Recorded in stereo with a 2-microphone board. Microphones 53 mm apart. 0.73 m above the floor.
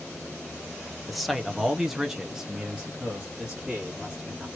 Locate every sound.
1.1 s a man speaking: centre (ahead or behind), 0.9 m; by 4.5 s 10° right (ahead or behind), 1.7 m